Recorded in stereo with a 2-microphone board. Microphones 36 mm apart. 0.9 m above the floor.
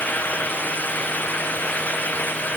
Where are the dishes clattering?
I don't hear dishes clattering.